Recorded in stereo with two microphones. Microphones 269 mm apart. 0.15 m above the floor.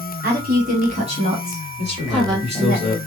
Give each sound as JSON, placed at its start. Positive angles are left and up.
{"t": 0.2, "sound": "a woman speaking", "side_deg": -35, "distance_m": 1.3}
{"t": 1.8, "sound": "a man speaking", "side_deg": -25, "distance_m": 1.7}